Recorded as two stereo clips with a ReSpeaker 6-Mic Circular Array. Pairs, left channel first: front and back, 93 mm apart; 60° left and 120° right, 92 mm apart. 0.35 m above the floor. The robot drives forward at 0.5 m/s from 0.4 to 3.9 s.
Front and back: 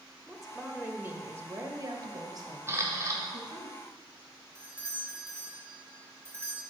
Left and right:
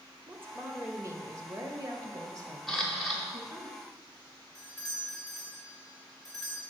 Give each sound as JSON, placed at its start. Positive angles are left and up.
{"t": 0.3, "sound": "a woman speaking", "azimuth_deg": -90, "distance_m": 0.9}
{"t": 2.7, "sound": "a camera shutter", "azimuth_deg": 150, "distance_m": 1.5}
{"t": 4.5, "sound": "a doorbell", "azimuth_deg": 140, "distance_m": 1.9}